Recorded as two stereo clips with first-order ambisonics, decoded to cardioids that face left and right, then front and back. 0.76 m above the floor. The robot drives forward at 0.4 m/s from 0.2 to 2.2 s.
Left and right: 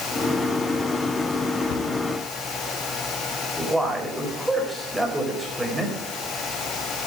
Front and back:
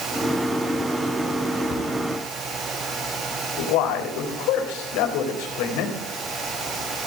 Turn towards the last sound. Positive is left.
turn(degrees=-5)